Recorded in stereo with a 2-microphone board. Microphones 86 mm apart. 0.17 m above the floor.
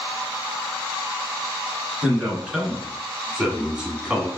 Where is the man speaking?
10° right (ahead or behind), 2 m.